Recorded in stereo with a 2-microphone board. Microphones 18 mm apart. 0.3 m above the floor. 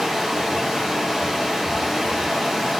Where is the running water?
30° right (ahead or behind), 1.6 m.